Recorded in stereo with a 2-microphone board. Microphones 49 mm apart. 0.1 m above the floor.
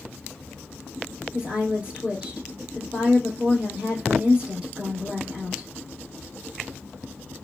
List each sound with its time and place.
1.3 s a woman speaking: 20° right (ahead or behind), 3 m